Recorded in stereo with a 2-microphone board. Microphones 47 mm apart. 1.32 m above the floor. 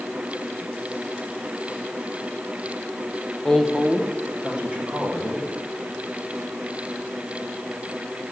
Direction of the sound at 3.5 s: 10° left (ahead or behind).